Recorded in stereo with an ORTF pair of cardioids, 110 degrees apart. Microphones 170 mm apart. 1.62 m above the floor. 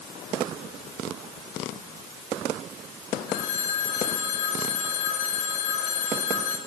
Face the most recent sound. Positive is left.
turn(degrees=65)